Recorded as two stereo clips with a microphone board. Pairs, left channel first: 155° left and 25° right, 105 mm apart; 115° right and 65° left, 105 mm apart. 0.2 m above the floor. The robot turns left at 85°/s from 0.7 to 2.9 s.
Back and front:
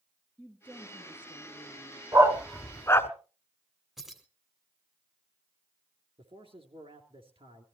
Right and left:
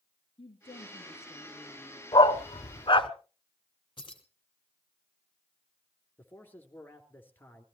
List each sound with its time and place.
0.4 s a woman speaking: 125° right, 3.5 m; by 2.0 s 120° left, 3.5 m
2.1 s a dog barking: 75° right, 0.9 m; by 3.1 s 140° right, 0.9 m
4.0 s keys jangling: 110° right, 1.4 m
6.2 s a man speaking: 45° right, 2.5 m